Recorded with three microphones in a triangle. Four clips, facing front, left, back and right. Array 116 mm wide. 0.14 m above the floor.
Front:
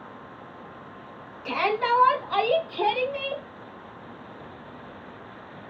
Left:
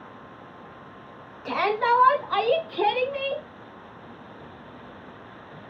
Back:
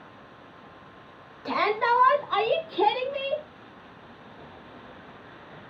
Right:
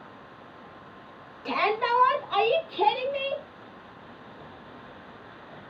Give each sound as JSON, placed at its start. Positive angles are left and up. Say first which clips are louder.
{"t": 1.4, "sound": "a shout", "louder": "left 3 dB, even", "azimuth_deg": 165, "distance_m": 1.1}